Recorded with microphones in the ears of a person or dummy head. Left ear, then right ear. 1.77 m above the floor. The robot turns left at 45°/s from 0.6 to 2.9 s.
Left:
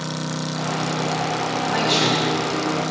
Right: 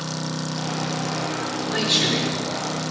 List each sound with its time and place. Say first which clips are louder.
1.7 s a man speaking: left 1 dB; 165° right, 6 m; by 2.9 s 140° left, 6 m